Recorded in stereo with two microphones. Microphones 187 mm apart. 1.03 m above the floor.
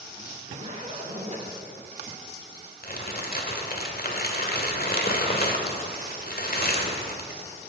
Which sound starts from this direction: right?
A zipper, at 0.4 s.